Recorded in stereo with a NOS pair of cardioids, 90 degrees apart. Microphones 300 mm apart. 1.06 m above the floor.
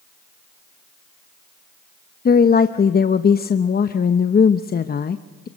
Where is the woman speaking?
30° left, 0.8 m.